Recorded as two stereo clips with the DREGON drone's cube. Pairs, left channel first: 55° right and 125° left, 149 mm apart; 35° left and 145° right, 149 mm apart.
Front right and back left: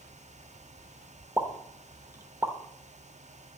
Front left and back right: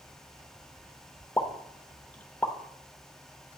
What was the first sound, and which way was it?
A pop, 95° left.